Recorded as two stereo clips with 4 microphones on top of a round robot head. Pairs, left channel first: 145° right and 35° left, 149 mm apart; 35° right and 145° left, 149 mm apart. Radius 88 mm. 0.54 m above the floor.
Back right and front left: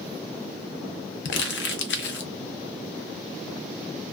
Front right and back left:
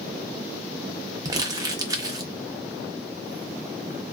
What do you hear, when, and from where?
1.2 s crumpling: 145° right, 0.6 m